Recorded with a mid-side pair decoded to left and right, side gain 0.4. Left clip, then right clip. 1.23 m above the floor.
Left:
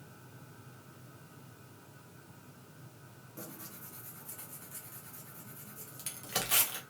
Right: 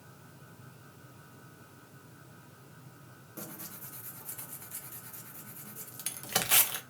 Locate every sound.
3.4 s tearing paper: 45° right, 0.8 m